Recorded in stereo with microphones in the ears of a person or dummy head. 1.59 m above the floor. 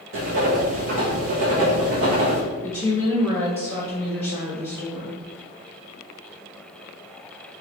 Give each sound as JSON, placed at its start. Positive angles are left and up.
{"t": 0.1, "sound": "writing", "side_deg": -40, "distance_m": 0.8}
{"t": 2.6, "sound": "a woman speaking", "side_deg": -25, "distance_m": 1.2}